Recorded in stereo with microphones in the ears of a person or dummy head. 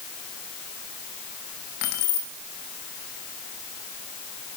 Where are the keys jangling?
60° left (ahead or behind), 0.8 m.